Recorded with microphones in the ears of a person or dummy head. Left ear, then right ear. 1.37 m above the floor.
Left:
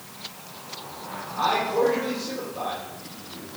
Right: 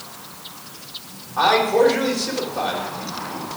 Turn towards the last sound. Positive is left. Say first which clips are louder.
# right 7 dB
turn(degrees=-70)  # may be behind; listen again after turning